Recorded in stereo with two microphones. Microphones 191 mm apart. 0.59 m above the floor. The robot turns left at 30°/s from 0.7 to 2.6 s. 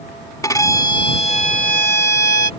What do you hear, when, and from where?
0.4 s a violin: 160° left; by 2.5 s 110° left